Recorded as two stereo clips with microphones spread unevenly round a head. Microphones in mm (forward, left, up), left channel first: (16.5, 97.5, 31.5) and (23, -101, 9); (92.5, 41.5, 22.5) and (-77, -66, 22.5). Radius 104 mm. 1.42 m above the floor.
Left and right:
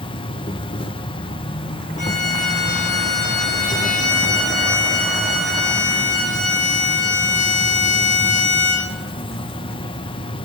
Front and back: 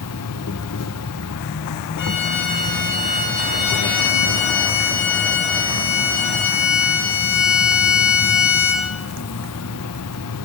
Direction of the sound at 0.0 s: 25° left.